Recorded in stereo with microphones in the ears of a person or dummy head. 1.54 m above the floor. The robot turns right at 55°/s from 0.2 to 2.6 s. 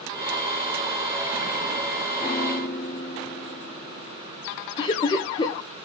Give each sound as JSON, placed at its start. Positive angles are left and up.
{"t": 2.2, "sound": "a piano", "side_deg": 20, "distance_m": 2.0}
{"t": 4.8, "sound": "laughter", "side_deg": 25, "distance_m": 1.0}